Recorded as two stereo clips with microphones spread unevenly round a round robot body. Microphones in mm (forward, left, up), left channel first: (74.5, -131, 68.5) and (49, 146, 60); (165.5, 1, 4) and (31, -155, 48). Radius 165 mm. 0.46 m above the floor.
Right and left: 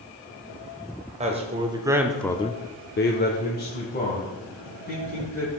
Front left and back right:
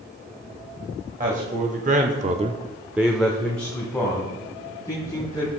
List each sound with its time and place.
1.2 s a man speaking: 160° left, 1.8 m; by 5.5 s 25° right, 4.5 m